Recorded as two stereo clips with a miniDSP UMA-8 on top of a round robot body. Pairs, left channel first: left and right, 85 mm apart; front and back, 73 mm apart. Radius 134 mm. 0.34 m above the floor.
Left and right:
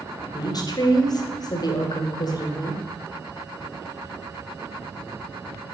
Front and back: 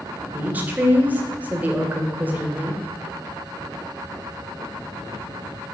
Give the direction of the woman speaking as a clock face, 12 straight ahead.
8 o'clock.